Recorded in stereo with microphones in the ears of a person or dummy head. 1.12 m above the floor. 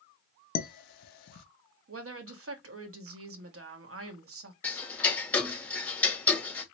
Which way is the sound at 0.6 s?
55° left (ahead or behind).